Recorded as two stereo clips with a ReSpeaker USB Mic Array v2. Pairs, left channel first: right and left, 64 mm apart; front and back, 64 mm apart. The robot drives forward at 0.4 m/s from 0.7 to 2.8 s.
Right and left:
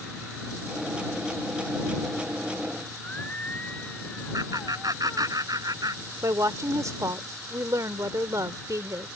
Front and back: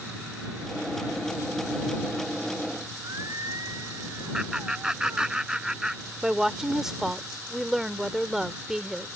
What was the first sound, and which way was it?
Singing, 155° right.